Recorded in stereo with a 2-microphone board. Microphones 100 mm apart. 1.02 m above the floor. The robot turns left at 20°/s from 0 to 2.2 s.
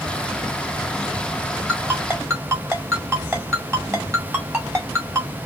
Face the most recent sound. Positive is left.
turn(degrees=-25)  # may be behind; listen again after turning